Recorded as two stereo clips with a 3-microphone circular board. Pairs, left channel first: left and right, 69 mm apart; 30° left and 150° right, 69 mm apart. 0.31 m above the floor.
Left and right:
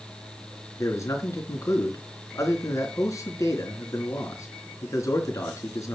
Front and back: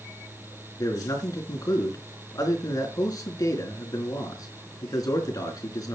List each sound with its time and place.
0.8 s a man speaking: 55° left, 4 m